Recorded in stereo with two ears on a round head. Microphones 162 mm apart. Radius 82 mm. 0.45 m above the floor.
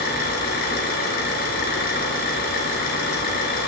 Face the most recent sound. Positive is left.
turn(degrees=60)  # may be behind; listen again after turning